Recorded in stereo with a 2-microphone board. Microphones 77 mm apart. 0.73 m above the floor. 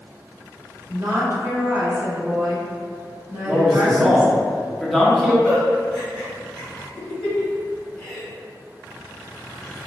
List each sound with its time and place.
0.9 s a woman speaking: 35° right (ahead or behind), 1.7 m
3.5 s a man speaking: centre (ahead or behind), 1.2 m
5.4 s a giggle: 5° left (ahead or behind), 1.5 m